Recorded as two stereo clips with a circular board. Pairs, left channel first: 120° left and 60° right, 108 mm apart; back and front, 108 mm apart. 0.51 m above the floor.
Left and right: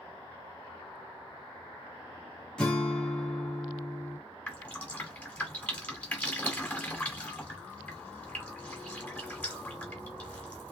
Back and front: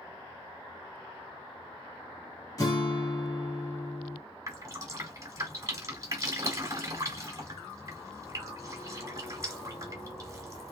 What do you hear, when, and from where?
2.6 s a guitar: 165° right, 1.4 m
4.5 s dripping: 45° left, 1.2 m